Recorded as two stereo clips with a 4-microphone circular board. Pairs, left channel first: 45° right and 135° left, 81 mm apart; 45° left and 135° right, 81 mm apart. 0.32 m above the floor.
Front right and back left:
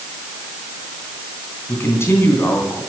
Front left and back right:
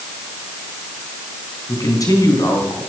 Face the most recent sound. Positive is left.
turn(degrees=10)